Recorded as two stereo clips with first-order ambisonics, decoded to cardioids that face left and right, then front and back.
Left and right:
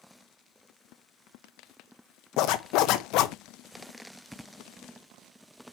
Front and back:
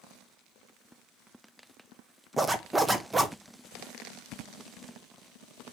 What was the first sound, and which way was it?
A zipper, 100° left.